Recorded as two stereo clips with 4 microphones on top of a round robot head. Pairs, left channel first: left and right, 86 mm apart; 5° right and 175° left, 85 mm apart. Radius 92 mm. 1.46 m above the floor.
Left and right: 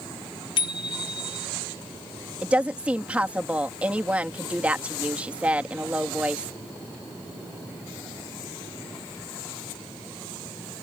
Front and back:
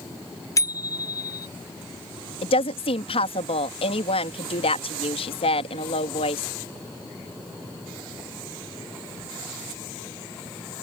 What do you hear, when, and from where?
0.6 s a bicycle bell: 50° left
2.4 s a woman speaking: 10° right